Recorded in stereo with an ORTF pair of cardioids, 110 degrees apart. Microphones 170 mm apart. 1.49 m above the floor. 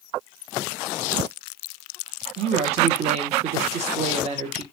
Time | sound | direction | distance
2.4 | a woman speaking | 40° right | 0.6 m